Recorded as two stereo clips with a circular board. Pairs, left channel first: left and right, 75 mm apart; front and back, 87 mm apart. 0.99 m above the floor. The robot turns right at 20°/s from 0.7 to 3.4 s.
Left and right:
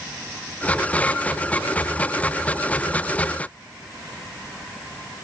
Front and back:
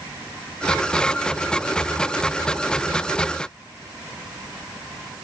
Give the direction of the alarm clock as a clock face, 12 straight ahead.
I don't hear an alarm clock.